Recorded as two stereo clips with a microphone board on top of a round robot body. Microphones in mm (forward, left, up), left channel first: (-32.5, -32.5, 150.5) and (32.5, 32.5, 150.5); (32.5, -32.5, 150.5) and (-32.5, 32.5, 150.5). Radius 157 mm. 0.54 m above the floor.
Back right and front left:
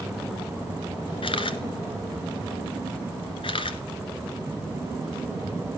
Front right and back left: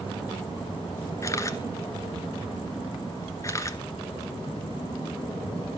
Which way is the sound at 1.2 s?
105° right.